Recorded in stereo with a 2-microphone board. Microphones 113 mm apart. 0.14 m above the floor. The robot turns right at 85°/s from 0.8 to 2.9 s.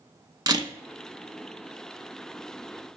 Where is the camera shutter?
35° right (ahead or behind), 0.5 m.